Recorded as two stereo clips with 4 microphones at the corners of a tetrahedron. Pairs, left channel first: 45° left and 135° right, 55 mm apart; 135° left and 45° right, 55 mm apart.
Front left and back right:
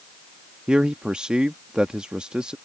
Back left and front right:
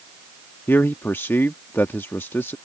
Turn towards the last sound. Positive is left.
turn(degrees=155)